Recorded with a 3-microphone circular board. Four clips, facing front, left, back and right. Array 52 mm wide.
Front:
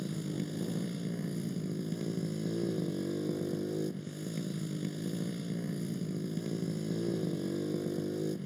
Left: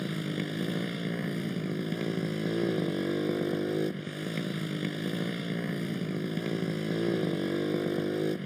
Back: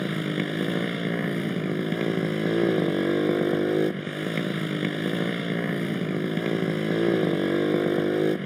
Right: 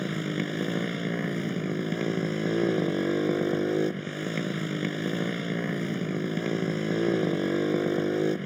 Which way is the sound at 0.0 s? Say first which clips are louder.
Right 3 dB, back 10 dB; 160° right.